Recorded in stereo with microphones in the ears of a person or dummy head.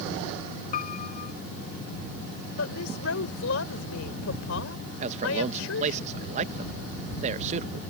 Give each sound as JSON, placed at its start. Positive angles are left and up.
{"t": 0.7, "sound": "a piano", "side_deg": 45}
{"t": 2.6, "sound": "a woman speaking", "side_deg": 80}
{"t": 5.0, "sound": "a man speaking", "side_deg": -40}